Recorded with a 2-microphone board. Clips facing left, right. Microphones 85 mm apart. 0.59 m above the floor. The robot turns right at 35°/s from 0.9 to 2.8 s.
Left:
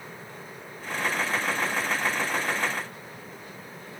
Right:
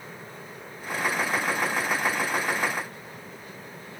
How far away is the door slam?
No door slam in this recording.